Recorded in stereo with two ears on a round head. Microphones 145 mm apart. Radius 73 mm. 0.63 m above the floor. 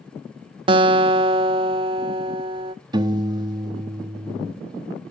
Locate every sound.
0.7 s a guitar: 30° right (ahead or behind), 0.5 m
2.9 s a piano: 25° right (ahead or behind), 0.8 m